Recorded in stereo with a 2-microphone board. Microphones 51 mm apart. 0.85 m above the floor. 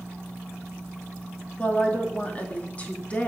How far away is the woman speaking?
About 1.7 m.